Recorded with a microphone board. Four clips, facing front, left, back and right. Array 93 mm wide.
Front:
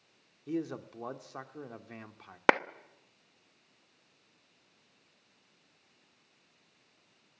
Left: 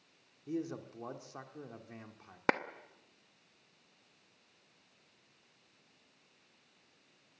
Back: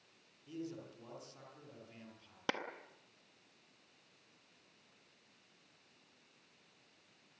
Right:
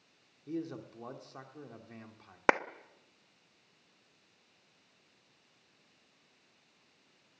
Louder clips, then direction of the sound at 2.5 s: Right 4 dB, front 15 dB; 20° right.